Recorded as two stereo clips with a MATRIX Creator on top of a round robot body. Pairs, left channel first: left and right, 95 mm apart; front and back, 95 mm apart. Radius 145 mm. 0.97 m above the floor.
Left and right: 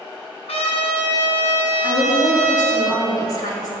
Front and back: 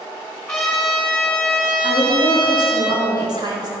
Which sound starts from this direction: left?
A trumpet, at 0.5 s.